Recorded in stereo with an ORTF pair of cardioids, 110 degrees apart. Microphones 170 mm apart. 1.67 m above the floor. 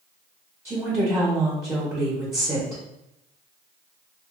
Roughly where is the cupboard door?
I don't hear a cupboard door.